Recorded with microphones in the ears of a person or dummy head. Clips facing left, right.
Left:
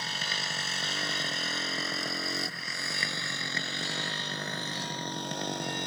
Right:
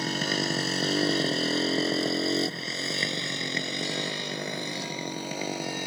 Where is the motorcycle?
50° right (ahead or behind); by 5.9 s 15° right (ahead or behind).